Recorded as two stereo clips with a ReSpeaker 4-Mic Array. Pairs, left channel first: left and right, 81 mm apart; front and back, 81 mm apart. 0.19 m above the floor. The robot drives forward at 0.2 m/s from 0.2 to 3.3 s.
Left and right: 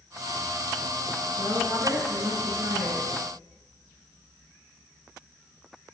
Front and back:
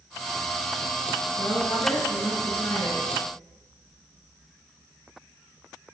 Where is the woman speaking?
50° right, 2.5 m; by 3.1 s 55° right, 2.5 m.